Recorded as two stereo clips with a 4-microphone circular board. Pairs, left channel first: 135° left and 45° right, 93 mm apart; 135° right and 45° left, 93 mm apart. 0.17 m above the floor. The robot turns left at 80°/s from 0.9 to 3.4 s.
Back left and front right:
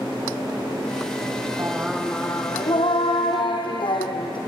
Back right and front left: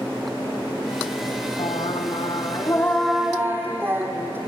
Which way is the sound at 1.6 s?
105° right.